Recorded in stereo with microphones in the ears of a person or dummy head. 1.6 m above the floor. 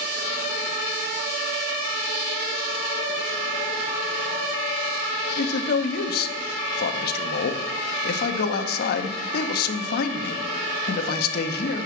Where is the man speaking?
60° left (ahead or behind), 0.6 m.